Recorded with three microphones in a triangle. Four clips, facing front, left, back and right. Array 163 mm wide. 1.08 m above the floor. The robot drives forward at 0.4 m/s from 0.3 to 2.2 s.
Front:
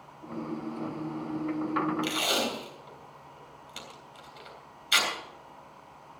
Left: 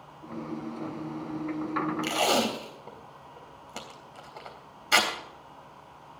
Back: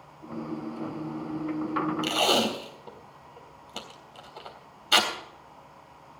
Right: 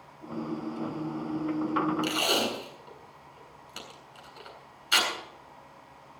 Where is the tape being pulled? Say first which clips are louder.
Left 3 dB, back 5 dB; 140° left, 3.5 m.